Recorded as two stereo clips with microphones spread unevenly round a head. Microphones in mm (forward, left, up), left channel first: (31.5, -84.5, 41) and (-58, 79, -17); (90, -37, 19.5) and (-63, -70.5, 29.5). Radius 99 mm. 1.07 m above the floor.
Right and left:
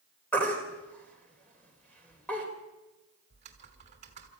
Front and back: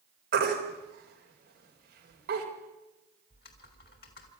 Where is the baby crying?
145° right, 4 m.